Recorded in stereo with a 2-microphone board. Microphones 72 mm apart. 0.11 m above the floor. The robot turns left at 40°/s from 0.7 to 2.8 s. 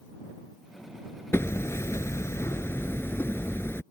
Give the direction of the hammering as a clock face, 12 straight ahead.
8 o'clock.